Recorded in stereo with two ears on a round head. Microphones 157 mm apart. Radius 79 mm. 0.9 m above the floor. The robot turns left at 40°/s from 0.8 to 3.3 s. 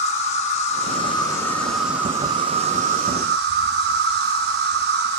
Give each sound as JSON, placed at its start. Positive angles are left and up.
{"t": 0.0, "sound": "an insect", "azimuth_deg": 40, "distance_m": 0.7}